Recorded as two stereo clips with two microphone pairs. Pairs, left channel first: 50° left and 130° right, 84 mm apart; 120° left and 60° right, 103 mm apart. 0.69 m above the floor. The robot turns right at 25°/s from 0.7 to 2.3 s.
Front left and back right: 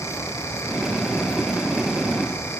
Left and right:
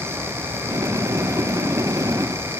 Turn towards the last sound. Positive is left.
No sound to turn to.